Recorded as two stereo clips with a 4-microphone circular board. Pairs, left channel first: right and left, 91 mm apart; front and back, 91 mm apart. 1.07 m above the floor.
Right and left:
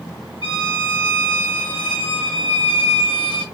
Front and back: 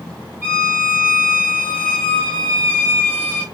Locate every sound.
0.4 s a violin: 110° right, 2.5 m